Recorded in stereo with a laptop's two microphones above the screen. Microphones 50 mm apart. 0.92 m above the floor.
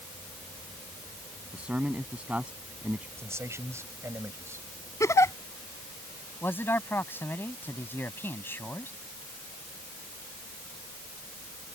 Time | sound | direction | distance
1.5 | a man speaking | 25° right (ahead or behind) | ?
3.2 | a man speaking | 65° right (ahead or behind) | ?
5.0 | a giggle | 80° left | ?
6.4 | a man speaking | 50° left (ahead or behind) | ?